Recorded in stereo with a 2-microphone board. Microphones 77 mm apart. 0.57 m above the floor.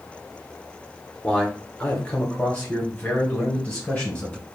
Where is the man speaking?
15° left (ahead or behind), 1.0 m.